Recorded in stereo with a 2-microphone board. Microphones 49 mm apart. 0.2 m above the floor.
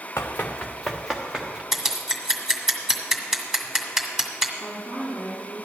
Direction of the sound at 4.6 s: 15° right (ahead or behind).